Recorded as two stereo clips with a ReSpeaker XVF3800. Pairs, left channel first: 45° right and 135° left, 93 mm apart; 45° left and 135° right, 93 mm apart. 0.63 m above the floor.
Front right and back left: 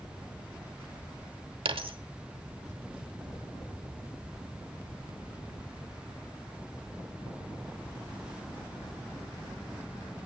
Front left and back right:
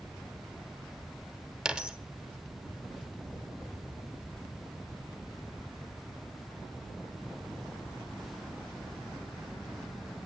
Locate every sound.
1.6 s a dropped coin: 145° left, 0.9 m